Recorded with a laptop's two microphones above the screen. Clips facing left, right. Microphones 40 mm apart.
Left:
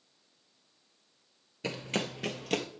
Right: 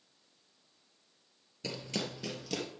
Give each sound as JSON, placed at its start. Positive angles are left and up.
{"t": 1.6, "sound": "running footsteps", "side_deg": 40, "distance_m": 1.1}